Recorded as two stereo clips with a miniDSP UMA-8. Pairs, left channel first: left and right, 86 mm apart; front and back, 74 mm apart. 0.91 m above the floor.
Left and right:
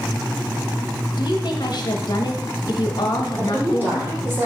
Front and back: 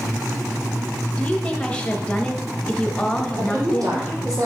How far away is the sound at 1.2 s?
About 0.9 m.